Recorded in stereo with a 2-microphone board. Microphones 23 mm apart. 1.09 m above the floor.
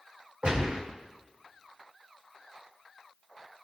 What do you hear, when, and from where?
0.4 s a gunshot: 50° right (ahead or behind), 4 m